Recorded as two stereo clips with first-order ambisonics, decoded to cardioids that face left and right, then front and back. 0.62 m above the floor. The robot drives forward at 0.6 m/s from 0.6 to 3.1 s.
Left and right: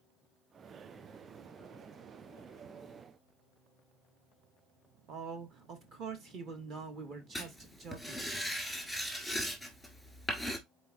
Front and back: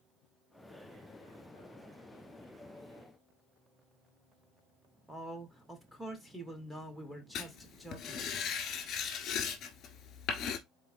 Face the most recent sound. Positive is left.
turn(degrees=0)